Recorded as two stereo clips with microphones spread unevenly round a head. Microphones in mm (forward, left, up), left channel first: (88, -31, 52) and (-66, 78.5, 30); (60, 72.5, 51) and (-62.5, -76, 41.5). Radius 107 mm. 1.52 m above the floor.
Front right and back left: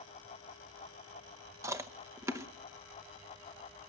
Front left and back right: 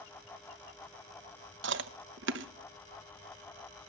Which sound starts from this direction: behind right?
Chewing, at 1.6 s.